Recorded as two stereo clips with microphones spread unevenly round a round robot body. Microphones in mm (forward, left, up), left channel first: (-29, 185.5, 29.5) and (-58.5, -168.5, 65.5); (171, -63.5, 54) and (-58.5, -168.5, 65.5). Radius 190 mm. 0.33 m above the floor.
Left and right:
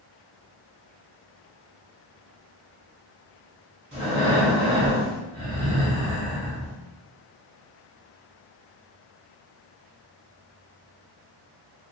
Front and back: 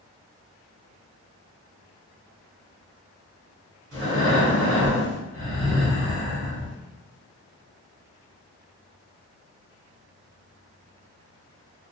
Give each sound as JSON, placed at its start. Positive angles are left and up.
{"t": 3.9, "sound": "breathing", "azimuth_deg": -170, "distance_m": 1.9}